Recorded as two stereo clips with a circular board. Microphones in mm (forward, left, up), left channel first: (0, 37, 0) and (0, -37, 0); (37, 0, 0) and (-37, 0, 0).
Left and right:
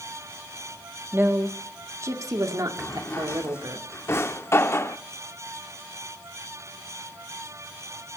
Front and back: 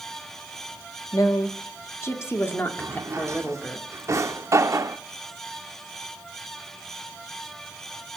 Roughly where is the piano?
I don't hear a piano.